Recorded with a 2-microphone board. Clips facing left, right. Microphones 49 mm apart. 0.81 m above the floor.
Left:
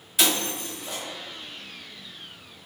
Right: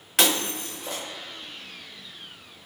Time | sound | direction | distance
0.2 | breaking glass | 75° right (ahead or behind) | 1.5 m